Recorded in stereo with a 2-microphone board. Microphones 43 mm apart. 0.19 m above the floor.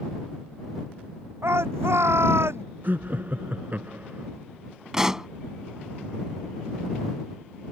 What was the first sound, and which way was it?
A shout, 80° right.